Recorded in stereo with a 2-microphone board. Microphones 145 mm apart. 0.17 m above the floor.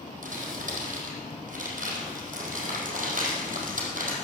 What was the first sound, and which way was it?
Crumpling, 65° right (ahead or behind).